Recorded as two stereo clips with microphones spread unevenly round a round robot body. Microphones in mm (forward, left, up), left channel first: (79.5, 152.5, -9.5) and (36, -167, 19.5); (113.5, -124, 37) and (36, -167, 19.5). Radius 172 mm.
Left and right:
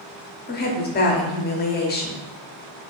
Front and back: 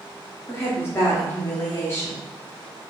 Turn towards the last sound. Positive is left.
turn(degrees=95)